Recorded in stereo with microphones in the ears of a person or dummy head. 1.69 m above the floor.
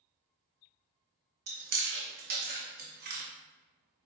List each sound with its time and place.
1.5 s chewing: 45° right (ahead or behind), 0.9 m